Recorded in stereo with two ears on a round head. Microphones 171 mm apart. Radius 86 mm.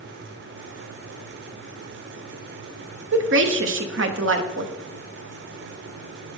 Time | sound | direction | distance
3.1 | a woman speaking | 70° right (ahead or behind) | 1.0 m